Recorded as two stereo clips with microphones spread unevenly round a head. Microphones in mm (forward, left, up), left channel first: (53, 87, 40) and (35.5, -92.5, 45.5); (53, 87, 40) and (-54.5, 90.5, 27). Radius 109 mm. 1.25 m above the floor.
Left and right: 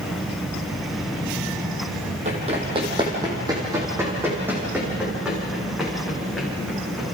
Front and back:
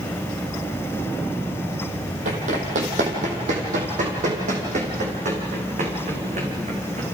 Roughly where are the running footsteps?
Behind right.